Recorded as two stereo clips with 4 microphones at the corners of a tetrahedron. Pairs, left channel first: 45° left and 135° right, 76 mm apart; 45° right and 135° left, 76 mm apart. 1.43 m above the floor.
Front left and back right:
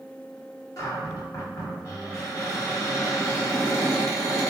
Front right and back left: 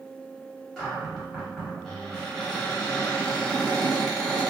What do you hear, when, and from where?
0.8 s a cupboard door: 40° left, 1.2 m